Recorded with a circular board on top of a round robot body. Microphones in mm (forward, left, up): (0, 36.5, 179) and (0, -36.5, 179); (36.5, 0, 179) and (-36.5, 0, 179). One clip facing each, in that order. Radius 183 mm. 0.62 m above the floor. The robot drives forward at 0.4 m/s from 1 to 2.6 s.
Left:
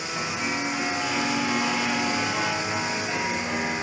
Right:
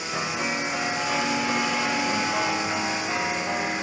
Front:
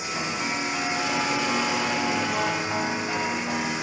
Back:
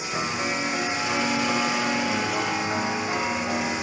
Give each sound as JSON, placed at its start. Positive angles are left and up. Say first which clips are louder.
{"t": 0.1, "sound": "a piano", "louder": "right 1 dB, back 2 dB", "azimuth_deg": -130, "distance_m": 3.0}